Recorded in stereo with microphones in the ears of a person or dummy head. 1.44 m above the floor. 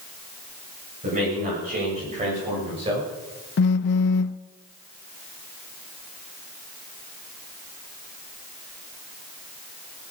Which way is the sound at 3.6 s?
55° left (ahead or behind).